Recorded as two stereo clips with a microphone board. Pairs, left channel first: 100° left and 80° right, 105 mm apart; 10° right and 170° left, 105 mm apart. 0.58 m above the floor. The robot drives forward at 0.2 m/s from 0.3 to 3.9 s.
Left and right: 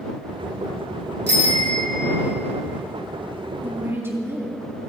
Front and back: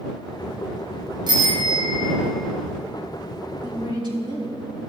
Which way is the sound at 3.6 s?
145° right.